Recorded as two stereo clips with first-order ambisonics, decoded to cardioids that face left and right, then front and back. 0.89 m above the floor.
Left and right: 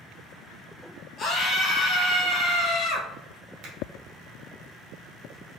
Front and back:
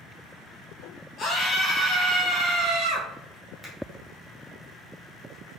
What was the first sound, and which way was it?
A scream, 40° left.